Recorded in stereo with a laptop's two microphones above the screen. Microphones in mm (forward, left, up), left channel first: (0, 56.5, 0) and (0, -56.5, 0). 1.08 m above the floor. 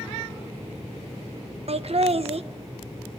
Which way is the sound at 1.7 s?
60° right (ahead or behind).